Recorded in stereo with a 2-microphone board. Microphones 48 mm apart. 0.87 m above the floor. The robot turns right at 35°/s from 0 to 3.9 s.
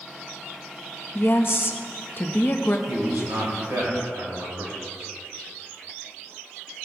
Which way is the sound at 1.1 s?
75° left.